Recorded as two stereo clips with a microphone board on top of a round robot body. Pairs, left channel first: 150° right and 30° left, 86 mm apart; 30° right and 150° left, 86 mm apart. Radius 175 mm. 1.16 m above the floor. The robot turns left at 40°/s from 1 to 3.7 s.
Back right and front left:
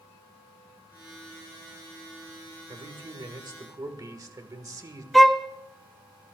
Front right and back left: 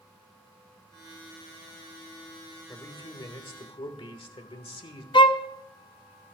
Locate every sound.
2.7 s a man speaking: 25° left, 1.7 m; by 5.0 s 15° right, 1.7 m
5.1 s a violin: 60° right, 0.7 m